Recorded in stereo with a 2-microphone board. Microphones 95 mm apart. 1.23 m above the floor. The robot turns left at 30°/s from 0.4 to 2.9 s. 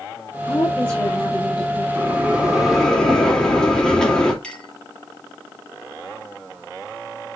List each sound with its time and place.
0.5 s a woman speaking: 30° left, 3 m; by 1.9 s 10° right, 3 m
1.9 s a bell: 20° right (ahead or behind), 2.5 m; by 4.3 s 10° left (ahead or behind), 2.5 m
4.4 s a clink: 10° left (ahead or behind), 3 m